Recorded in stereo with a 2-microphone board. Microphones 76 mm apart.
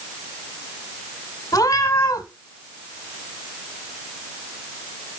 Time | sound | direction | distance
1.5 | a cat meowing | 60° left (ahead or behind) | 1.0 m